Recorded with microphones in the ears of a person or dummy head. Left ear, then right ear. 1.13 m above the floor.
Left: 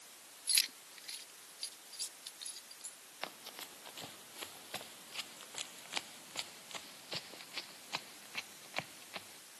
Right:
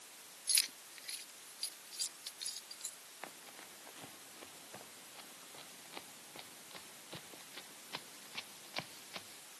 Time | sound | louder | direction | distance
0.5 | keys jangling | left 2 dB | 15° left (ahead or behind) | ?
3.2 | running footsteps | left 6 dB | 80° left | ?